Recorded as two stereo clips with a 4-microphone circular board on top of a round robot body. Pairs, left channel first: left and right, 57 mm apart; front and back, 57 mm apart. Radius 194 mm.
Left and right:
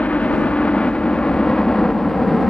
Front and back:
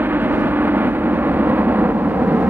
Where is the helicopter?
145° left; by 2.5 s 170° left.